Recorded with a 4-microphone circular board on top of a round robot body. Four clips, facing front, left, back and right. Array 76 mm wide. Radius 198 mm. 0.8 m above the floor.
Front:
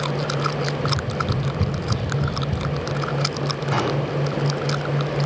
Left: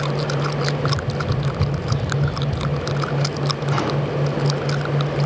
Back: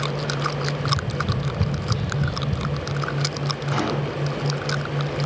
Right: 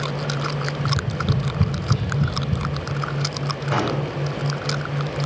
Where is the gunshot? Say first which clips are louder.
Right 1 dB, front 2 dB; 85° right, 5 m.